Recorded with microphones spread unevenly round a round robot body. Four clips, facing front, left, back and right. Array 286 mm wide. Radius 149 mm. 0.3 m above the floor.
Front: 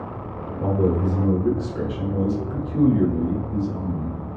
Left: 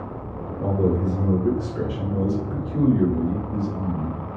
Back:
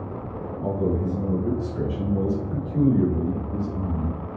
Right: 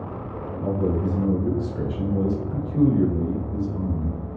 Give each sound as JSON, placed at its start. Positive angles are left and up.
{"t": 0.6, "sound": "a man speaking", "azimuth_deg": 30, "distance_m": 1.8}